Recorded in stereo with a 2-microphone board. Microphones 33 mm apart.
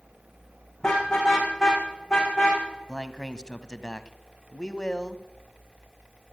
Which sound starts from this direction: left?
A man speaking, at 2.9 s.